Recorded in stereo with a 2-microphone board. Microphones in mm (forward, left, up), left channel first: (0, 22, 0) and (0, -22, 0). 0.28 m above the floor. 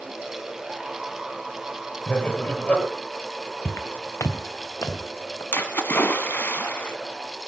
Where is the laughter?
30° left (ahead or behind), 6 m.